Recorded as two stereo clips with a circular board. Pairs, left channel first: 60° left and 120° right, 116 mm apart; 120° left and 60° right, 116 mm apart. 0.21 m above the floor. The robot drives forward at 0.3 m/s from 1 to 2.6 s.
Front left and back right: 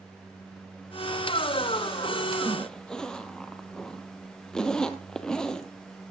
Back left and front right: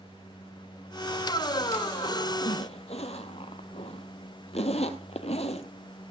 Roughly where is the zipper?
Behind left.